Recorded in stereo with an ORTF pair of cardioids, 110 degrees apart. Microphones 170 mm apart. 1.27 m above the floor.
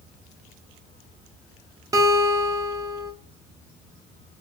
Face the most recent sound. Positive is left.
turn(degrees=-20)